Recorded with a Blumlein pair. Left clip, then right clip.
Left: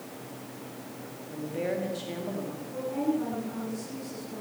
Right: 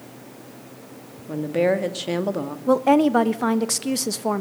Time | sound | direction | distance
1.3 | a woman speaking | 35° right | 2 m
2.7 | a woman speaking | 45° right | 1.3 m